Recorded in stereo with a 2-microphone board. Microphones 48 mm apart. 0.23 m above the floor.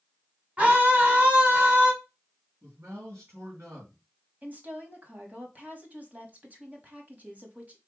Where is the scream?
30° right (ahead or behind), 1.5 m.